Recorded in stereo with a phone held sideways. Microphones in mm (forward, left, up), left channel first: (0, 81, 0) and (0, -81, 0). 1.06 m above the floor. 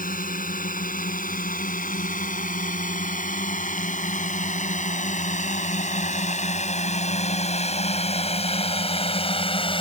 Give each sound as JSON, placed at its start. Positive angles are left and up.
{"t": 0.0, "sound": "a drone", "side_deg": 65}